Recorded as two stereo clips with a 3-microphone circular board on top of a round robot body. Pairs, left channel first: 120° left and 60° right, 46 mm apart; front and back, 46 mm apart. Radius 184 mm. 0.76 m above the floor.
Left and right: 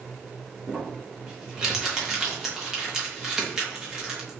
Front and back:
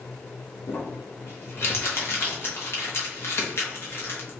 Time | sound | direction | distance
0.7 | crumpling | 20° left | 2 m